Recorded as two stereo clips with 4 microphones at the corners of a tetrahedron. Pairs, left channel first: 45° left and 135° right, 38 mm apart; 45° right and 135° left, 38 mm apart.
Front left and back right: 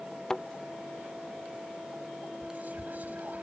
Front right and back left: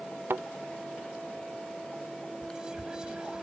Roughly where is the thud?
Behind left.